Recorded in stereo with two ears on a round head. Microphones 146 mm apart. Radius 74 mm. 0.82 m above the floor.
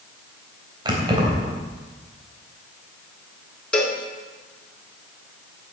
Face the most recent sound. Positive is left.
turn(degrees=5)  # may be behind; listen again after turning